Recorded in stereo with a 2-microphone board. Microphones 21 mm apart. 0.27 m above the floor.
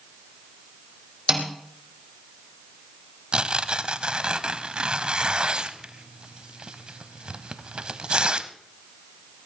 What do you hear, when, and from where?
1.3 s a snare drum: 20° right (ahead or behind), 3 m
3.3 s tearing paper: 50° right (ahead or behind), 0.8 m